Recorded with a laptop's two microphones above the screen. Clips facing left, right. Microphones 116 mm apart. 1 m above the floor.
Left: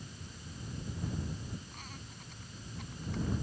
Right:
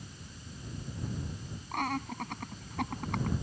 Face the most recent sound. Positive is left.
turn(degrees=-85)